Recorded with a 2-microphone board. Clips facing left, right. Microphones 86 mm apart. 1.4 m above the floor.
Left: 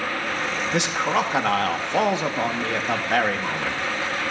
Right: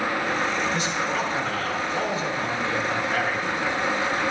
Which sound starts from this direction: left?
A man speaking, at 0.7 s.